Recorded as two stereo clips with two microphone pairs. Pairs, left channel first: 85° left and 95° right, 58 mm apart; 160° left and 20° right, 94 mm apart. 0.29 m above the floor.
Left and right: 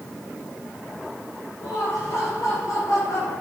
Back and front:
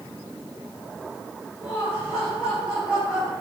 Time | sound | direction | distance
1.6 | laughter | 60° left | 6.5 m